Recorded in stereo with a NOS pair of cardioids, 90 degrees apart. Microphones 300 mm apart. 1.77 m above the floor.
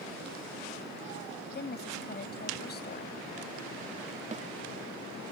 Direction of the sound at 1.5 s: 35° left.